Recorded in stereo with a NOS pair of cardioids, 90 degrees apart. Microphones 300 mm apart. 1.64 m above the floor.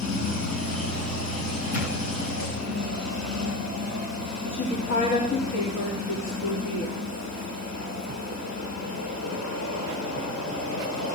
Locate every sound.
0.0 s a machine running: 65° left, 8 m
1.7 s a drawer: 65° left, 7.5 m
4.5 s a woman speaking: 65° left, 3.5 m